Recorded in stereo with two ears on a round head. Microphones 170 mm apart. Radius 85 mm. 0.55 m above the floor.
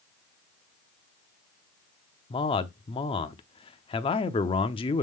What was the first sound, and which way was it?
A man speaking, 30° left (ahead or behind).